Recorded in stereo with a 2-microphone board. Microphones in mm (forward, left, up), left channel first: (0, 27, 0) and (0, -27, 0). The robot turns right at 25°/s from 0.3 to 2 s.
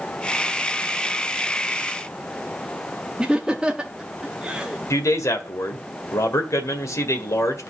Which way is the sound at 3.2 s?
15° right (ahead or behind).